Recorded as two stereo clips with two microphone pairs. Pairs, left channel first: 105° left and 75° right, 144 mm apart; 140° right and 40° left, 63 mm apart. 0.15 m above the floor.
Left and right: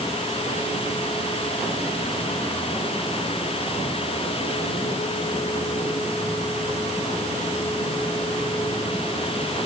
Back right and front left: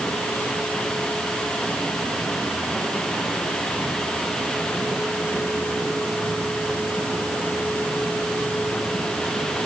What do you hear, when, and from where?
Only background noise.